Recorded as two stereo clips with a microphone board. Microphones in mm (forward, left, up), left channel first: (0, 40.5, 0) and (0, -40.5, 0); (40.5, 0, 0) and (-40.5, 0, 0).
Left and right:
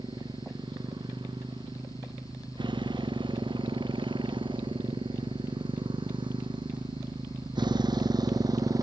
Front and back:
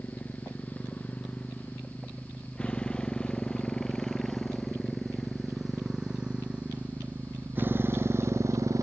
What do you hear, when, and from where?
0.0 s a motorcycle: 70° right; by 8.8 s 135° right